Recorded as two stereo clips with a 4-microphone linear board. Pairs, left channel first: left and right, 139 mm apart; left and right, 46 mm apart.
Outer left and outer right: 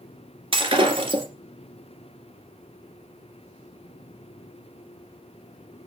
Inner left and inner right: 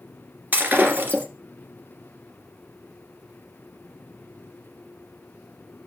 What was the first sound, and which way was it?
Breaking glass, 40° right (ahead or behind).